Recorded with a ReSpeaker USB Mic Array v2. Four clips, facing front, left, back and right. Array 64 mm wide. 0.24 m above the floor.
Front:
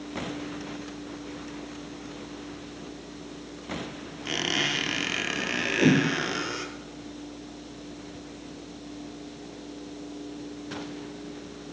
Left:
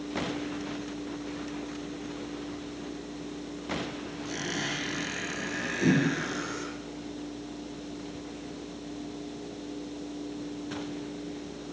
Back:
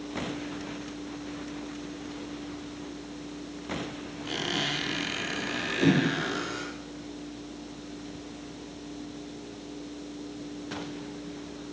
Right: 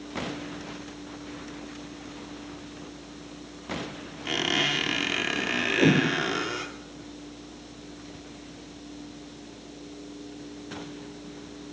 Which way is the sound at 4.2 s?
60° right.